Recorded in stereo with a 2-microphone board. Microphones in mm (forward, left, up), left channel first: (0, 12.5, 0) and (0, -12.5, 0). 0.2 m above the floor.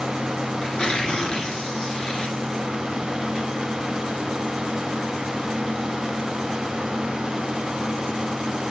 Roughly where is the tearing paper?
Left.